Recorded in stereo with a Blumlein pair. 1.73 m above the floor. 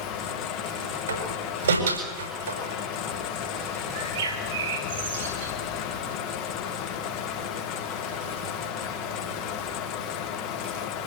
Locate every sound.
0.0 s a fan: 40° left, 3 m
1.1 s a door slam: 70° right, 6.5 m
3.9 s a bird: 60° right, 5.5 m